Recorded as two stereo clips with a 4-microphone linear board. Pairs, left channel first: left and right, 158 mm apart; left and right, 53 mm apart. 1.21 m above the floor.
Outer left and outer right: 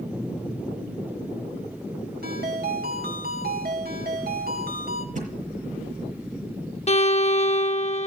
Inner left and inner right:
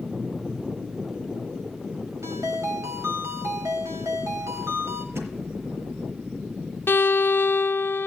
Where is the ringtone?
80° right, 3.5 m.